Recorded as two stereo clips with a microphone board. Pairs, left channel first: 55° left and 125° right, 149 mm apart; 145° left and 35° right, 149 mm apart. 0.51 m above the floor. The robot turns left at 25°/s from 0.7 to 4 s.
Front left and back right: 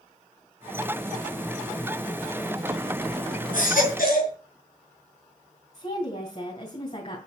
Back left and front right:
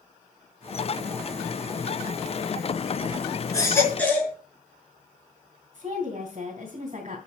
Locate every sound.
3.5 s a baby crying: 75° left, 5.5 m; by 4.3 s 65° left, 5.5 m
5.7 s a woman speaking: 10° left, 3 m